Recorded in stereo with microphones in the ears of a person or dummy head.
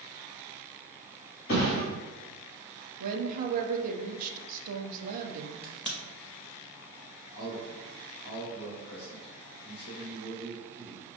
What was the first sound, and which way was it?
A thud, 45° left (ahead or behind).